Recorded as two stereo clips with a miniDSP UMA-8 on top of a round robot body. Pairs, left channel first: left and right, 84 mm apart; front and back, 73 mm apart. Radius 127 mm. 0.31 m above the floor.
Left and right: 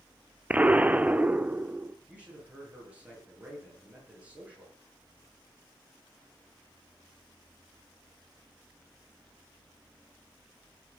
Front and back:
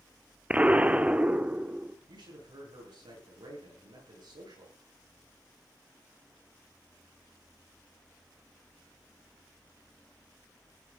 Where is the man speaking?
165° right, 10 m.